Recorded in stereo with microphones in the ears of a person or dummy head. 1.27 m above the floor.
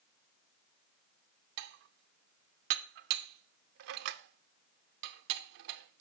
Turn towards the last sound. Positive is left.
turn(degrees=-60)  # may be behind; listen again after turning